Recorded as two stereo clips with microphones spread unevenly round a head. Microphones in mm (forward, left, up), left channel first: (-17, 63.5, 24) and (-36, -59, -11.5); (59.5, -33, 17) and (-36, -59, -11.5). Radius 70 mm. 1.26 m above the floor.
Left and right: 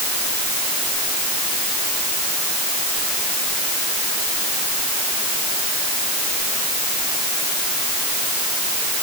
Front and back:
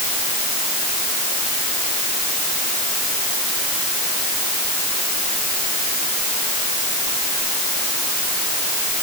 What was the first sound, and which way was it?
Only background noise.